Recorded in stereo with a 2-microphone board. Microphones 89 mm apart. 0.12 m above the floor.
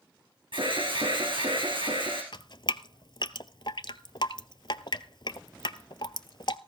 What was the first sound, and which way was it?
An alarm, 70° right (ahead or behind).